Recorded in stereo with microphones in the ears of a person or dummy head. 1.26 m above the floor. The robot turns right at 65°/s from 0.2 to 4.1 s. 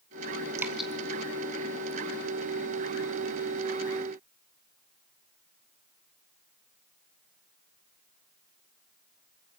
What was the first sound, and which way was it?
Dripping, 20° right (ahead or behind).